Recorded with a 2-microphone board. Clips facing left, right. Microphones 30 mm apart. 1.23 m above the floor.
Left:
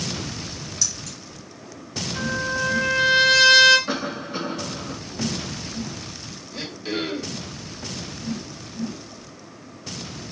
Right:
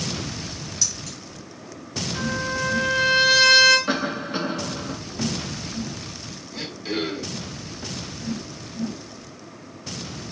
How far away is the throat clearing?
About 1.1 m.